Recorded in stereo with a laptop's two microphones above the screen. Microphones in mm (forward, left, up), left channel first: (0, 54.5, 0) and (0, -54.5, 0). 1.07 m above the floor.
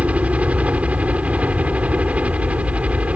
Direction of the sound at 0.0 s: 10° right (ahead or behind).